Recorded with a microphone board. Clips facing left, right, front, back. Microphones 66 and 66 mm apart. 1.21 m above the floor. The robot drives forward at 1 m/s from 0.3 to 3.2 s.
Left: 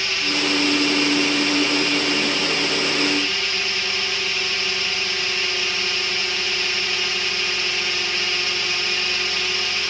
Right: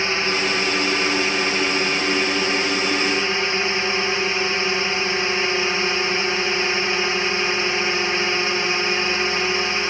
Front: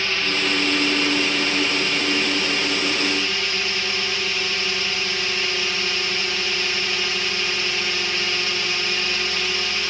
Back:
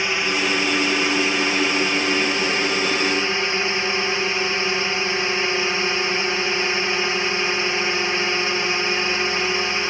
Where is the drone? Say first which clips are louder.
Right 2 dB, back 2 dB; 120° right; by 9.9 s 130° right.